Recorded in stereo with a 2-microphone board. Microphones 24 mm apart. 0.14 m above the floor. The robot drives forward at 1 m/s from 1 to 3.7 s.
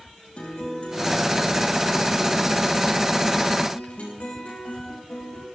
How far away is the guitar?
About 8 m.